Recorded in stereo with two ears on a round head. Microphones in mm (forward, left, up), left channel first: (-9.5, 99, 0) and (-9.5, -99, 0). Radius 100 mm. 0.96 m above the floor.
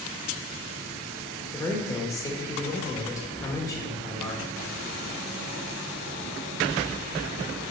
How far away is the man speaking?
About 1.3 m.